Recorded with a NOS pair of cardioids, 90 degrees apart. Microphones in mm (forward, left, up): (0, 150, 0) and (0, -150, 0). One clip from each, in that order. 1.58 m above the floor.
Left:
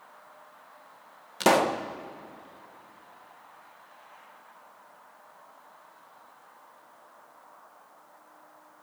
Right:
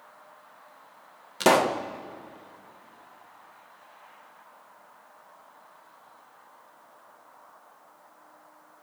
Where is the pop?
5° right, 1.5 m.